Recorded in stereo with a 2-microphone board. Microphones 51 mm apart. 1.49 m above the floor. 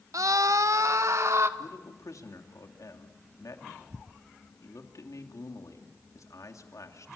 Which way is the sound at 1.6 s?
85° left.